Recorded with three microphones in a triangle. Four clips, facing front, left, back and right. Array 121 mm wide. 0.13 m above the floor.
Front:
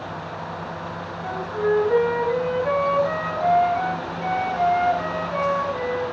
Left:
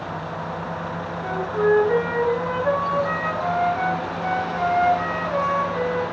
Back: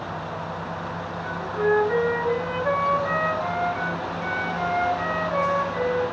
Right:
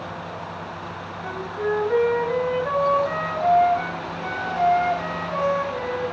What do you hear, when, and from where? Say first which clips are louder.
1.2 s a flute: left 6 dB, front 1 dB; 150° left, 2.0 m